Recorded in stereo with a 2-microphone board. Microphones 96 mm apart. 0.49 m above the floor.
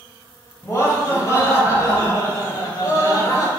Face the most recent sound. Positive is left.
turn(degrees=45)  # may be behind; listen again after turning